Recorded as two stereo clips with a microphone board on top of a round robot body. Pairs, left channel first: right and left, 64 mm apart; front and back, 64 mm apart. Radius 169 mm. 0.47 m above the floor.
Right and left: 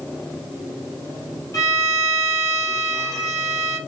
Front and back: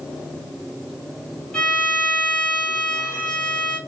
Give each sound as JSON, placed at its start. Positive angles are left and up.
{"t": 1.5, "sound": "a violin", "azimuth_deg": -75, "distance_m": 1.3}